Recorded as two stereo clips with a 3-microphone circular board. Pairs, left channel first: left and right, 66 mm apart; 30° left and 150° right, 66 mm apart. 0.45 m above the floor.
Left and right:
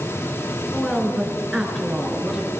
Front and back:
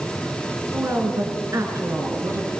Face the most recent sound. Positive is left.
turn(degrees=-175)